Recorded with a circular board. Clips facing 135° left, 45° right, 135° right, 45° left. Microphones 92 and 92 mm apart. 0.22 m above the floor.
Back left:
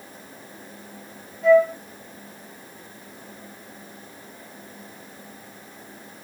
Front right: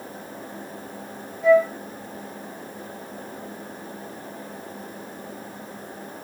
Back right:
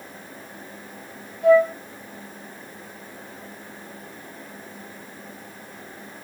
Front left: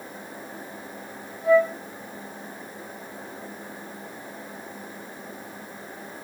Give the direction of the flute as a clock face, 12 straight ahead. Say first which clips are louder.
Back left 1 dB, back right 3 dB; 4 o'clock.